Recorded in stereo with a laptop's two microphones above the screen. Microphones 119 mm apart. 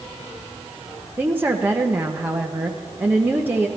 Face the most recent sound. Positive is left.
turn(degrees=-15)  # may be behind; listen again after turning